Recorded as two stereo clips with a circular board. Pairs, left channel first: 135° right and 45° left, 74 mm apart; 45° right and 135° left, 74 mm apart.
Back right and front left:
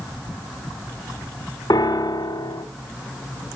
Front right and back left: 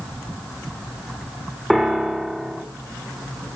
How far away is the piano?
About 1.4 m.